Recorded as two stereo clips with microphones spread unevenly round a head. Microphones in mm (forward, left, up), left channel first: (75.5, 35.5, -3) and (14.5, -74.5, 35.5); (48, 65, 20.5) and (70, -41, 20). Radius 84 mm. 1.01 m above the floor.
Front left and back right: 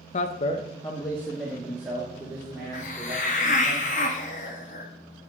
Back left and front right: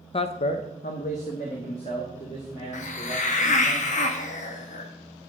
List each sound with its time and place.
0.1 s a man speaking: 65° left, 0.7 m; by 3.7 s 165° left, 4 m
2.7 s a hiss: 100° left, 1.0 m